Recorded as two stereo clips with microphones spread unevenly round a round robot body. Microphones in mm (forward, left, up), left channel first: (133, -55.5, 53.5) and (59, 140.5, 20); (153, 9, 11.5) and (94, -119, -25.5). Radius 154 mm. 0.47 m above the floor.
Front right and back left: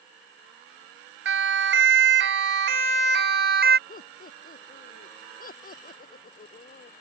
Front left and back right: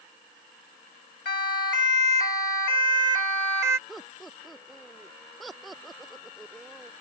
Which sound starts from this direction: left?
A siren, at 1.2 s.